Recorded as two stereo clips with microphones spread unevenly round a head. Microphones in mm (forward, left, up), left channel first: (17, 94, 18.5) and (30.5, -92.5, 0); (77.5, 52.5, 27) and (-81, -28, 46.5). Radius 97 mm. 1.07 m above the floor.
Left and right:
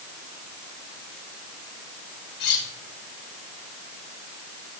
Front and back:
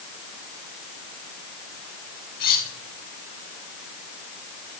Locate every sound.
2.4 s cutlery clinking: 65° left, 5 m